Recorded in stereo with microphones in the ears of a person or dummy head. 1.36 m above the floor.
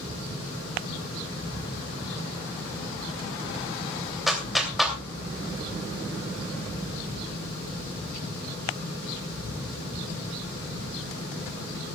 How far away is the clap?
About 3 m.